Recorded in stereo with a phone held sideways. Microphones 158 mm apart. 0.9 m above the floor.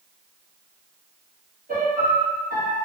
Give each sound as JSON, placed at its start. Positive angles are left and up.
{"t": 1.7, "sound": "a piano", "side_deg": -55, "distance_m": 0.8}